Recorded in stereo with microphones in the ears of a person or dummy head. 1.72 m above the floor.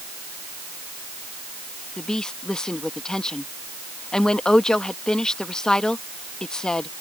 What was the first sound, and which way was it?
A woman speaking, 5° left (ahead or behind).